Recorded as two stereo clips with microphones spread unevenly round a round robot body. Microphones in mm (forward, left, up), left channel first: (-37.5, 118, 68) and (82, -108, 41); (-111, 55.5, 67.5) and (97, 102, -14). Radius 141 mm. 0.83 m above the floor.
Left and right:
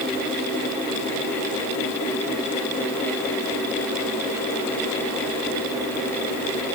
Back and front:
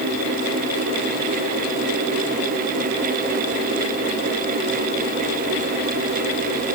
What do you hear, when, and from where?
Only background noise.